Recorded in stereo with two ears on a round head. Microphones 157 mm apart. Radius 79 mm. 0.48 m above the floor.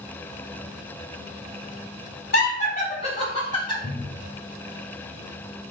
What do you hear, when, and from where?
2.3 s laughter: 50° left (ahead or behind), 2.5 m; by 3.7 s 30° left (ahead or behind), 2.5 m
3.8 s a cupboard door: 35° left (ahead or behind), 1.1 m